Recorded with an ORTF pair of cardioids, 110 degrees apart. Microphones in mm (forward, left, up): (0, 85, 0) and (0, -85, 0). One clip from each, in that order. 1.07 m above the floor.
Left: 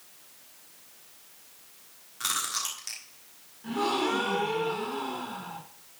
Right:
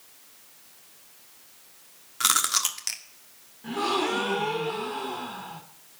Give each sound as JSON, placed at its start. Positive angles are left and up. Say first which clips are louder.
{"t": 2.2, "sound": "chewing", "louder": "right 7 dB", "azimuth_deg": -45, "distance_m": 1.5}
{"t": 3.6, "sound": "a gasp", "louder": "right 1 dB", "azimuth_deg": -10, "distance_m": 1.7}